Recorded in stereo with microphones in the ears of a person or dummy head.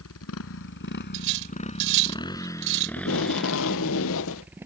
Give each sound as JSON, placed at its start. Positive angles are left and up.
{"t": 0.0, "sound": "a motorcycle", "side_deg": 75}
{"t": 1.1, "sound": "cutlery clinking", "side_deg": -70}
{"t": 3.0, "sound": "tape being pulled", "side_deg": 65}